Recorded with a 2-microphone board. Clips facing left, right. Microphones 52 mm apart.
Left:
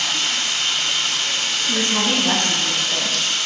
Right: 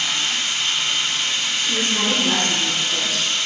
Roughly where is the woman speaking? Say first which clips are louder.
Left 1 dB; left.